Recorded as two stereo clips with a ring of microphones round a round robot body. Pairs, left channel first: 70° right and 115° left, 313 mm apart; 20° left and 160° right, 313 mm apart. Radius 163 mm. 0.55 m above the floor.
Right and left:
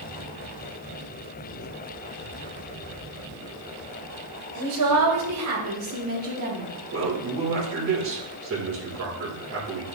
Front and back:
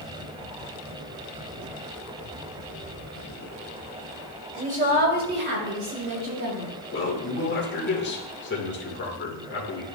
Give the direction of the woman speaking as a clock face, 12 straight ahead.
7 o'clock.